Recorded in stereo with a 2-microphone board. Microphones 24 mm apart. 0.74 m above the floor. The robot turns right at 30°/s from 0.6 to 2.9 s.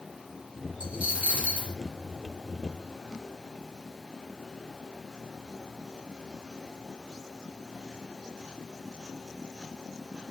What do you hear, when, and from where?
0.8 s a dropped coin: 80° right, 2.5 m; by 1.8 s 55° right (ahead or behind), 2.5 m